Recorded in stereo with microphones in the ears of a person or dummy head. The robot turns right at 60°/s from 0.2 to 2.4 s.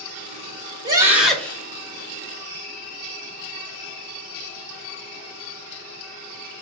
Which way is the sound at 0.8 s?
25° right.